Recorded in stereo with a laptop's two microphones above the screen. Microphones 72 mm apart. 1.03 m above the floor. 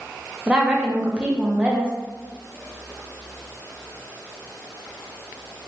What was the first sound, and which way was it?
A woman speaking, 15° right (ahead or behind).